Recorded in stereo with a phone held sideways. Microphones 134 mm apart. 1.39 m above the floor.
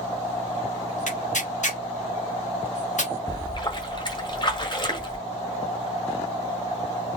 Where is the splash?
35° left (ahead or behind), 1.4 m.